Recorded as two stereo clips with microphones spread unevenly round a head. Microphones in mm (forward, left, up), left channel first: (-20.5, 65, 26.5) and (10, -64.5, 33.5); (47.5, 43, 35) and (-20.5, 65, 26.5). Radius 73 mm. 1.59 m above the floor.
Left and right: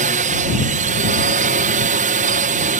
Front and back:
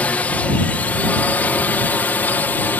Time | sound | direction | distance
0.0 | a drone | 95° right | ?